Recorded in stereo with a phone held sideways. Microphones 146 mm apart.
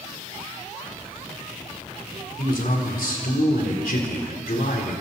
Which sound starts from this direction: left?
A man speaking, at 2.4 s.